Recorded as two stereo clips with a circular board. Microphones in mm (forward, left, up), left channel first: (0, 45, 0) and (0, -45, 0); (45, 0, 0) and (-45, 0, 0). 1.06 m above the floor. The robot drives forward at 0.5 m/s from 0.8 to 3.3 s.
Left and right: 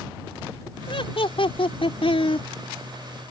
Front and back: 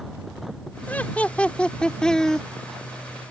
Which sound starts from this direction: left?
Laughter, at 0.9 s.